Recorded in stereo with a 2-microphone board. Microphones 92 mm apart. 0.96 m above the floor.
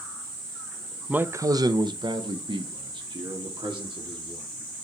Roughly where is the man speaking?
Centre.